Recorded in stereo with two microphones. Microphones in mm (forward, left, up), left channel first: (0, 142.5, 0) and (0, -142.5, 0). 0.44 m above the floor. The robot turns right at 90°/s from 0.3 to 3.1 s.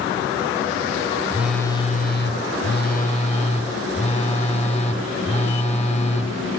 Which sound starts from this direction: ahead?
A phone buzzing, at 1.3 s.